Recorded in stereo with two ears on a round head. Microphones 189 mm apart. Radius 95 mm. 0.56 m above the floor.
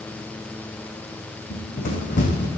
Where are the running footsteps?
45° left (ahead or behind), 1.9 m.